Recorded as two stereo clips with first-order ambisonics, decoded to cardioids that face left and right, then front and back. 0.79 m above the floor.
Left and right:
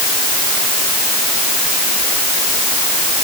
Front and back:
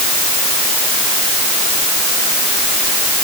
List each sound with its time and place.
Only background noise.